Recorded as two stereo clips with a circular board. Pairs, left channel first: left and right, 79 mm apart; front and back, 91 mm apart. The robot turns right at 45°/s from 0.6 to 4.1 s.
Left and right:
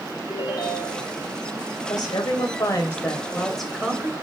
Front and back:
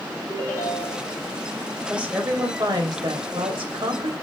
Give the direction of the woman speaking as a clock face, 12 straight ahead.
9 o'clock.